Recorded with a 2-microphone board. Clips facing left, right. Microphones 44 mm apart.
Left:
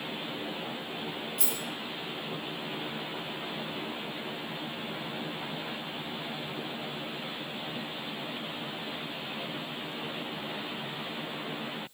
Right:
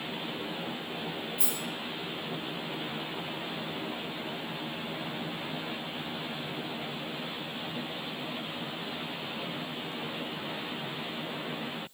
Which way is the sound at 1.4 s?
75° left (ahead or behind).